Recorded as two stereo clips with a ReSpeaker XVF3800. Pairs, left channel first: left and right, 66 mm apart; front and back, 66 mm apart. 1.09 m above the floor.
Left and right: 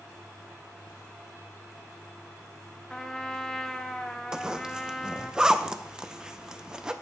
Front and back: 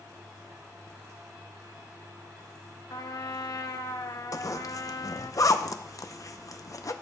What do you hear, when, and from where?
2.9 s a trumpet: 10° left, 0.8 m
4.3 s a zipper: 15° right, 0.6 m